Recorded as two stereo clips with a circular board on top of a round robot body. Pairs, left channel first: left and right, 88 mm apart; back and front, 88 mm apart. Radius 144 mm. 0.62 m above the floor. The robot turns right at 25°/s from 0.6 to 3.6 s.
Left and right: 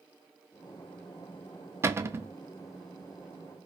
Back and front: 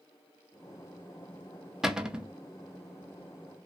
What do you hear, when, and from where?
1.8 s a cupboard door: 80° right, 0.6 m; by 2.3 s 65° right, 0.6 m